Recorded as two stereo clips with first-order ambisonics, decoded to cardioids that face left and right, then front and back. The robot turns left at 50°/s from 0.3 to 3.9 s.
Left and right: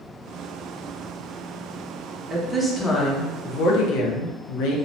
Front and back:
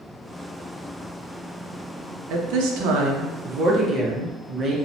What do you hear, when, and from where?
2.3 s a woman speaking: 165° right, 0.6 m; by 4.8 s 115° left, 0.6 m